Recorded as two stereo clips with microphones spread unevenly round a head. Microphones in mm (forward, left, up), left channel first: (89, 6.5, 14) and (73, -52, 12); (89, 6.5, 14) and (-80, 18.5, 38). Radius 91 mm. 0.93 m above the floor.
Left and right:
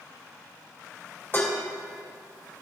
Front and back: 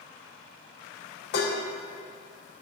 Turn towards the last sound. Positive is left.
turn(degrees=20)